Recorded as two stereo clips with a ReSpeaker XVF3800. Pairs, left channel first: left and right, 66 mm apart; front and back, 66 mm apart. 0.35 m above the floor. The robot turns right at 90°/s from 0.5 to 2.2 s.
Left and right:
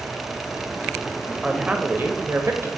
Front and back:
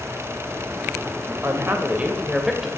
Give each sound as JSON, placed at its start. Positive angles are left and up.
{"t": 1.4, "sound": "a woman speaking", "azimuth_deg": -170, "distance_m": 1.2}